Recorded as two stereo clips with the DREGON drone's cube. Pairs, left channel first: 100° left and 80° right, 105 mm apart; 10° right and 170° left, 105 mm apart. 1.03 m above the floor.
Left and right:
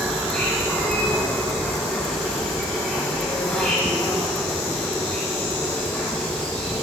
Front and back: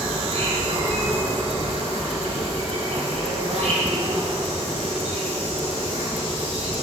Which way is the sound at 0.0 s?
175° right.